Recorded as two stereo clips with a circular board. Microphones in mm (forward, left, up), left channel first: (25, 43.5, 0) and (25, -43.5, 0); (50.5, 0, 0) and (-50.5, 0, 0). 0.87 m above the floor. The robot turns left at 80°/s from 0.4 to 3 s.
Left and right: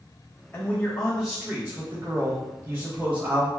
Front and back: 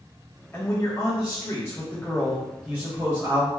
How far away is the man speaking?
About 0.9 m.